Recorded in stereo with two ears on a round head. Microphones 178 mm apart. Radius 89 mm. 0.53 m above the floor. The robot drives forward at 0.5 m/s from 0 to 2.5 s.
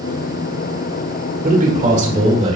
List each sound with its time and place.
1.4 s a man speaking: 45° right (ahead or behind), 1.7 m; by 2.6 s 35° right (ahead or behind), 2 m